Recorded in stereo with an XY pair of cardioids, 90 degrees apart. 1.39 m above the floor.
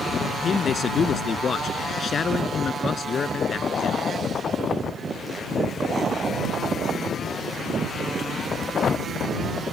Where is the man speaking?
50° left.